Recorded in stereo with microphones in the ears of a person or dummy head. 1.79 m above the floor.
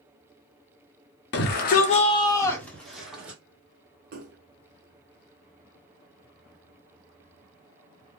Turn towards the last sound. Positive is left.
turn(degrees=-45)  # may be behind; listen again after turning